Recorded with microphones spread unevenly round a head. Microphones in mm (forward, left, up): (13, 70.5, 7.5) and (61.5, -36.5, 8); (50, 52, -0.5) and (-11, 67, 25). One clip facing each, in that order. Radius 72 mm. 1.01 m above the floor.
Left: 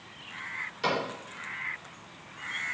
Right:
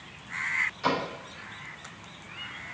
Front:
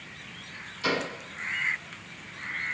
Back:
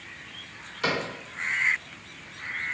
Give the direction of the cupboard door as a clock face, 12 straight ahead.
7 o'clock.